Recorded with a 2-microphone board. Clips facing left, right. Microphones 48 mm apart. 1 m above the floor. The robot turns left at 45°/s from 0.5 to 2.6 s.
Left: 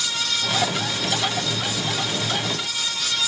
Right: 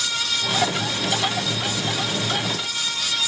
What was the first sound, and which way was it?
Only background noise.